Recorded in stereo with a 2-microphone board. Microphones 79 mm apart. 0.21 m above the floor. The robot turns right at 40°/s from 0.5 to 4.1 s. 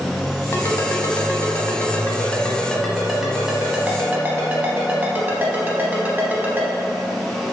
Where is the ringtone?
40° left (ahead or behind), 0.8 m; by 6.7 s 25° right (ahead or behind), 0.8 m.